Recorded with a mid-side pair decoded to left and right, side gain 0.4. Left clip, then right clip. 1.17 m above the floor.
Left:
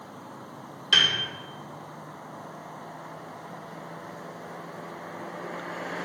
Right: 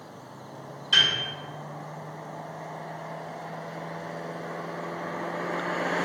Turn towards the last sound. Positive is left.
turn(degrees=60)